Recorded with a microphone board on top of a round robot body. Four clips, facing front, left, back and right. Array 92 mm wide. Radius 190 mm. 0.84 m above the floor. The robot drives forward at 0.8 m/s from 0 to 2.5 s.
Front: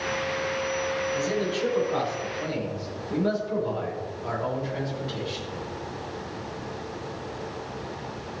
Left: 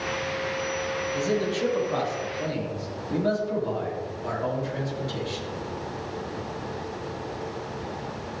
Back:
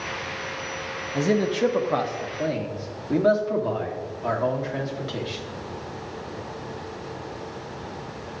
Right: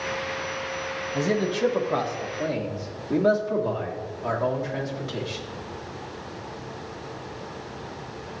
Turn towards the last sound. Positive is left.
turn(degrees=-165)